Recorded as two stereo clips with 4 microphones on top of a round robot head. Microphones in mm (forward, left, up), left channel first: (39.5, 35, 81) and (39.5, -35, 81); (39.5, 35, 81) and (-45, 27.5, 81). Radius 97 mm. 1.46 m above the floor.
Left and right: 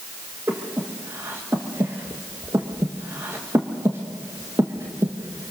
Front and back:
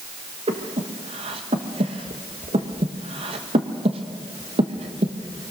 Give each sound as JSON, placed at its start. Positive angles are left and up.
{"t": 0.5, "sound": "breathing", "azimuth_deg": -155, "distance_m": 1.3}